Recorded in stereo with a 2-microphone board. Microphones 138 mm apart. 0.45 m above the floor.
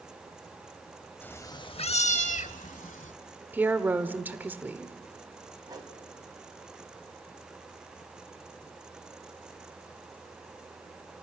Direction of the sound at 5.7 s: 30° right (ahead or behind).